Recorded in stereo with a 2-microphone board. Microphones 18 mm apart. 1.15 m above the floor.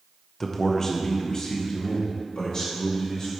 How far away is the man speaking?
About 0.7 m.